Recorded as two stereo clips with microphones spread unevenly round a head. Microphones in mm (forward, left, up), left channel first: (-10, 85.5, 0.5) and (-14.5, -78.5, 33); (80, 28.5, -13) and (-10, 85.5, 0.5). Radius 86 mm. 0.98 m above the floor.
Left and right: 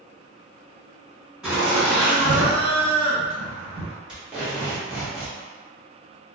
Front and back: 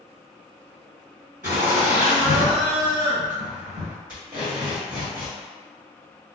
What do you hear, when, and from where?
1.4 s laughter: 175° left, 1.8 m
4.1 s tape being pulled: straight behind, 1.2 m